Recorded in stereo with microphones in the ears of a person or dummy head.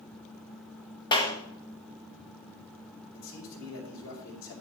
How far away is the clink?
No clink in this recording.